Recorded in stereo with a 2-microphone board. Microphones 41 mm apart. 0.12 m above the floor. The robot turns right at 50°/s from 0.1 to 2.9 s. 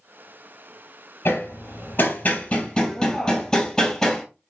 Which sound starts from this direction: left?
Hammering, at 1.2 s.